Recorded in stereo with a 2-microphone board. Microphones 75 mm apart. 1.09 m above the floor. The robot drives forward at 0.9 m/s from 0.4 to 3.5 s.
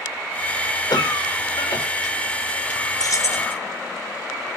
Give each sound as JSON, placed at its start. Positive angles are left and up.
{"t": 0.9, "sound": "a cough", "side_deg": 65, "distance_m": 5.0}
{"t": 3.0, "sound": "keys jangling", "side_deg": 55, "distance_m": 1.0}